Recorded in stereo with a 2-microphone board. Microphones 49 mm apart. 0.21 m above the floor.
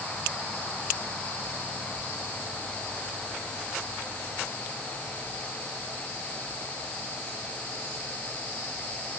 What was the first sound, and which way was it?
Only background noise.